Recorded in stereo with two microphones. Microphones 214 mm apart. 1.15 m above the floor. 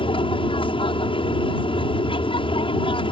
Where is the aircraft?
25° left (ahead or behind).